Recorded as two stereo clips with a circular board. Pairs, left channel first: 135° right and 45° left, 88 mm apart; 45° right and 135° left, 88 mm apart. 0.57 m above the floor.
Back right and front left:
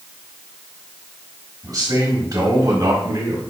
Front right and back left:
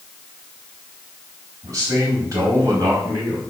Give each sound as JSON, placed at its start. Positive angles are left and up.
{"t": 1.6, "sound": "a man speaking", "azimuth_deg": 90, "distance_m": 4.0}